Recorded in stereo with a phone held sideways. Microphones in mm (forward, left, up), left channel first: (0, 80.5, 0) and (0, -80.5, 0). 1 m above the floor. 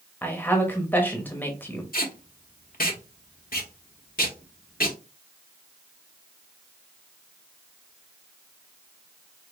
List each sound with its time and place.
0.2 s a woman speaking: 10° left (ahead or behind), 0.9 m
1.9 s tape being pulled: 65° left (ahead or behind), 1.0 m